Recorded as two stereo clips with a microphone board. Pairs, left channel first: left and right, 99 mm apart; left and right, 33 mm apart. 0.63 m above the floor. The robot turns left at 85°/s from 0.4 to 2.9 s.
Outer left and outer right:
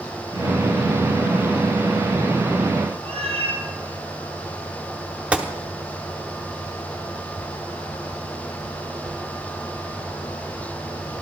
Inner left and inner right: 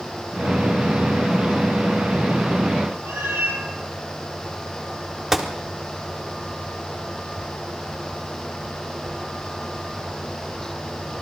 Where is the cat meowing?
80° right, 2.5 m.